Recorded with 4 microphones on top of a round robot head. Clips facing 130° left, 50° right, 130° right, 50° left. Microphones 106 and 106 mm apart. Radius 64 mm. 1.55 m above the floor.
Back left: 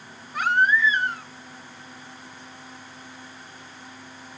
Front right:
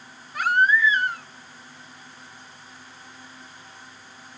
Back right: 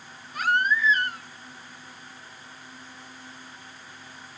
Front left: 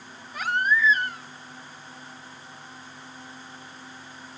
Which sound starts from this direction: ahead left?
A baby crying, at 0.3 s.